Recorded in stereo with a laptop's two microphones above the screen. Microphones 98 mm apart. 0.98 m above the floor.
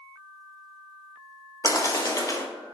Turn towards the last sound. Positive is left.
turn(degrees=35)  # may be behind; listen again after turning